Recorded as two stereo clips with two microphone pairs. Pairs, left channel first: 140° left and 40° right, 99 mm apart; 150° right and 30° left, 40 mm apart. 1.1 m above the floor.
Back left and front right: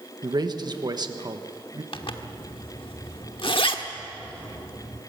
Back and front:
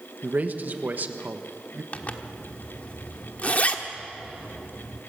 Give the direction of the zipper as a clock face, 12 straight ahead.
7 o'clock.